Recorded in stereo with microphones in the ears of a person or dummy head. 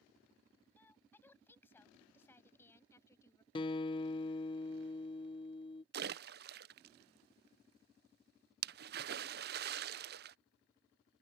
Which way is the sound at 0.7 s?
15° left (ahead or behind).